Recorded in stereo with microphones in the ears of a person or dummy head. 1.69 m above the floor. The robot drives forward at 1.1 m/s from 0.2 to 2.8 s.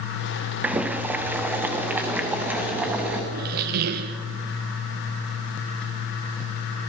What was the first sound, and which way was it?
Boiling, centre (ahead or behind).